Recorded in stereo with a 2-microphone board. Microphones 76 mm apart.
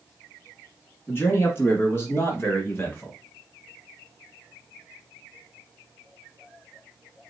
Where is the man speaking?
30° left (ahead or behind), 1.8 m.